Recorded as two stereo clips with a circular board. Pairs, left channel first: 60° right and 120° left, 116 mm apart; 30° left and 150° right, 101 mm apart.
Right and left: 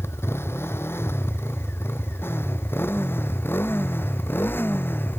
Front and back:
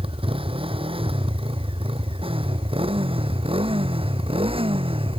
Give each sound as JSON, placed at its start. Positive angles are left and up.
{"t": 0.0, "sound": "a motorcycle", "azimuth_deg": -130}